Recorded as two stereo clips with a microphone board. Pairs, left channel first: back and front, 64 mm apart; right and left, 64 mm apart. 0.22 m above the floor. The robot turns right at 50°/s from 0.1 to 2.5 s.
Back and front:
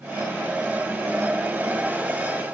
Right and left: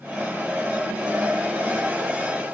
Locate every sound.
Only background noise.